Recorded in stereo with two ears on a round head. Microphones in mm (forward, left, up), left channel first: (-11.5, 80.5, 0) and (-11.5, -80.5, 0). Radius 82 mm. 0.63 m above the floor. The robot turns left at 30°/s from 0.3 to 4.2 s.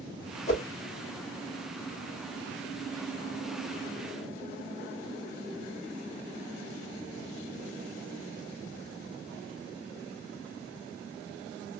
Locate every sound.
0.5 s a whoosh: 40° left (ahead or behind), 1.4 m